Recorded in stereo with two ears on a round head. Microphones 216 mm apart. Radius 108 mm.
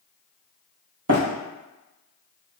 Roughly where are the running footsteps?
Right.